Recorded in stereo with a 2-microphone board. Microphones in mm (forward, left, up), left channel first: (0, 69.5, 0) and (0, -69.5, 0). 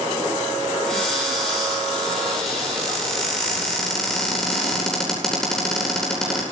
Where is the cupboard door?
5° left (ahead or behind), 9 m.